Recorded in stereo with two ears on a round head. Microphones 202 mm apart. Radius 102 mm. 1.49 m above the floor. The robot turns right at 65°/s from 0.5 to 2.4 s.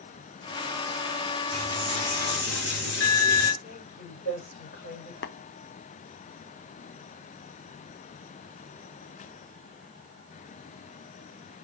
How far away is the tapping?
About 0.5 m.